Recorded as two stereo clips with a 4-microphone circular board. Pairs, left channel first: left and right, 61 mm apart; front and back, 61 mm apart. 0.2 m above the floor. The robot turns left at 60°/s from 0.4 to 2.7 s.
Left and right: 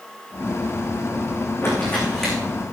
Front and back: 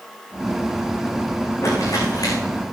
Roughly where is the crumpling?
Ahead left.